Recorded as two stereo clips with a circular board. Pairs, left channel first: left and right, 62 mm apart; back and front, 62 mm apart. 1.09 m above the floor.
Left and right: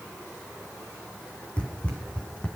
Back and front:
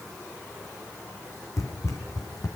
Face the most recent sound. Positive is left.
turn(degrees=155)